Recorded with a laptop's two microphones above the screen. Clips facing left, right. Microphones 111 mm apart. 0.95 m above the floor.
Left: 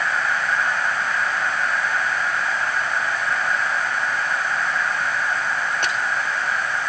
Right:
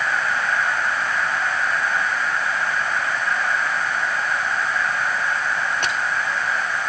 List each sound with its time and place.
Only background noise.